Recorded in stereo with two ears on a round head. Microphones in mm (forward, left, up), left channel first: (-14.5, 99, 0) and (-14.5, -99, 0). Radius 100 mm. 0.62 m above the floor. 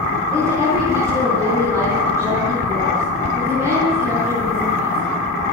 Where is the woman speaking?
15° right (ahead or behind), 9.5 m.